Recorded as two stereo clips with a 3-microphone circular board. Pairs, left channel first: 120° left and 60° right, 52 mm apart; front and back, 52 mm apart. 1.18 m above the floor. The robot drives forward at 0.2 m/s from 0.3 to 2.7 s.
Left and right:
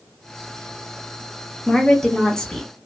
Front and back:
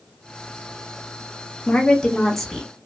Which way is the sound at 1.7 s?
45° left.